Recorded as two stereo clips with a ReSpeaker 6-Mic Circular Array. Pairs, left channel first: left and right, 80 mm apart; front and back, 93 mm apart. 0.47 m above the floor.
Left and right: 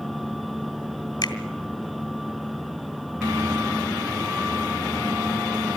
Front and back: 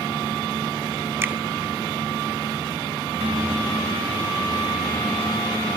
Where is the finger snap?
120° left, 2.0 m.